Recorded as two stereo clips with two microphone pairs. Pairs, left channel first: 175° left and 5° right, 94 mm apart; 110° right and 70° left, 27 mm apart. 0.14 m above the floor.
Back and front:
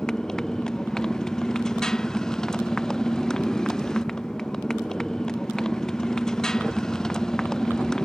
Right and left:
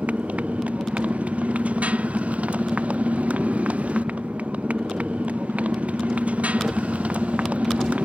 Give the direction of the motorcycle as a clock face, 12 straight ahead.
9 o'clock.